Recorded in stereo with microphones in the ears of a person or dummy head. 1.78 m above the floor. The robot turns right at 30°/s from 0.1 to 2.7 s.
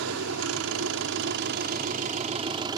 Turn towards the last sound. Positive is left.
turn(degrees=-25)